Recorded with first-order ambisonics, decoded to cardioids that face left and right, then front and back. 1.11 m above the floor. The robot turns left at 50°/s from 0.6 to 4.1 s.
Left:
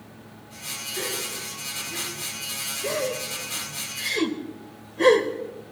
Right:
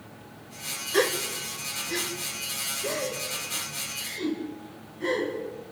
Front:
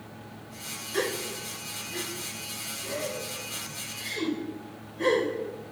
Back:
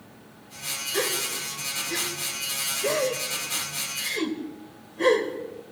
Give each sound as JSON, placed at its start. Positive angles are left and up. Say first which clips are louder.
{"t": 0.9, "sound": "a gasp", "louder": "right 7 dB, back 2 dB", "azimuth_deg": -95, "distance_m": 3.0}